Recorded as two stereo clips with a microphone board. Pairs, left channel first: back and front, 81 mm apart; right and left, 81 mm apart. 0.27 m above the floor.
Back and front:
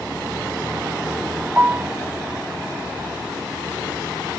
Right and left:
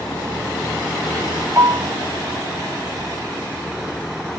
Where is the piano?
60° left, 0.6 m.